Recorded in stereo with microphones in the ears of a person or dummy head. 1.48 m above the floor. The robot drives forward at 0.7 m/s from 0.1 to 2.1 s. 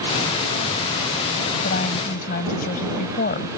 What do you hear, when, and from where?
1.6 s a woman speaking: 45° left (ahead or behind)